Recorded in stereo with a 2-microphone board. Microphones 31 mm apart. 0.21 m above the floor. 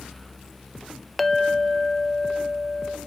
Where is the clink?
5° left (ahead or behind), 0.6 m.